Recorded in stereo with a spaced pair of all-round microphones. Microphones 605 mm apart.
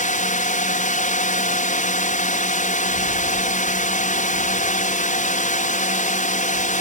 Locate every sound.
0.0 s a drone: 10° left (ahead or behind)